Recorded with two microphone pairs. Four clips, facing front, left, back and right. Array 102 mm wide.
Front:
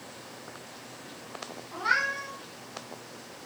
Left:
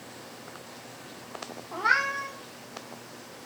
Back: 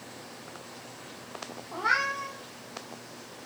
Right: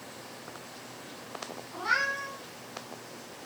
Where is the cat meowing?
105° left, 5 m.